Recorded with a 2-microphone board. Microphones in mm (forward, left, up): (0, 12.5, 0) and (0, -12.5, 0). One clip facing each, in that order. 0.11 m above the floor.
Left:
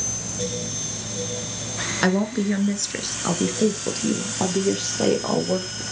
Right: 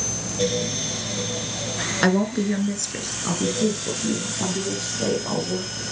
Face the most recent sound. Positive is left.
turn(degrees=65)  # may be behind; listen again after turning